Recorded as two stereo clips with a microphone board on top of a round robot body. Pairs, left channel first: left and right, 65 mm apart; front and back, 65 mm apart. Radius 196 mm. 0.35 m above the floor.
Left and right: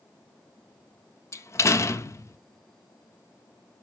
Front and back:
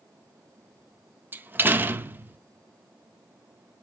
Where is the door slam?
125° left, 0.7 m.